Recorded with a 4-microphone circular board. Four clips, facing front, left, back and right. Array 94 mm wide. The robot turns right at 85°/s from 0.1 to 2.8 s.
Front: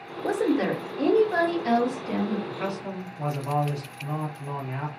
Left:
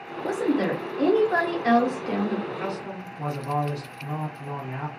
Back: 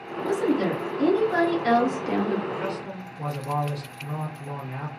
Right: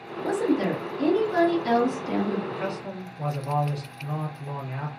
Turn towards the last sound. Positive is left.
turn(degrees=10)